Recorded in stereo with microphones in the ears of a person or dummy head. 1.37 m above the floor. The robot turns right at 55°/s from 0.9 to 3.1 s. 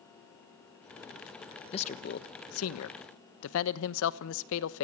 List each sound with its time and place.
1.7 s a man speaking: 35° left, 1.2 m; by 4.8 s 110° left, 1.2 m